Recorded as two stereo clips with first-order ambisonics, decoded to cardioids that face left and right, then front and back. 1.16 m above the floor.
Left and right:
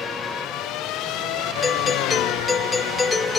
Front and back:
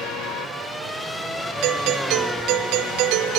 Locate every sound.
1.6 s a doorbell: 165° left, 0.9 m